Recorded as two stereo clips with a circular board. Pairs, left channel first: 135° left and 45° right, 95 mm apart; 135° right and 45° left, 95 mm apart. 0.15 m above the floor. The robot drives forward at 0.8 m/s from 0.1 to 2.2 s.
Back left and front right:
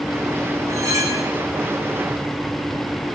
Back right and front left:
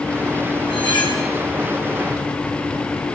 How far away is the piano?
No piano in this recording.